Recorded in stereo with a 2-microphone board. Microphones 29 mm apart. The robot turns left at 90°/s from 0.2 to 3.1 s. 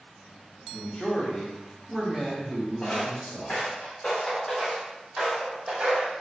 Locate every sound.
0.7 s a man speaking: 25° left (ahead or behind), 0.7 m; by 3.6 s 30° right (ahead or behind), 0.7 m
2.8 s footsteps: 35° left (ahead or behind), 1.5 m; by 6.1 s 50° right (ahead or behind), 1.0 m